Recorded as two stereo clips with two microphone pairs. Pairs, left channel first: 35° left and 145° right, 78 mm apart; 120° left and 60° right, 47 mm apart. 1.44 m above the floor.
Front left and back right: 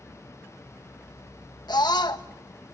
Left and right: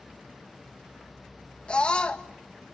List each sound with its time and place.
1.7 s a scream: 55° left, 1.5 m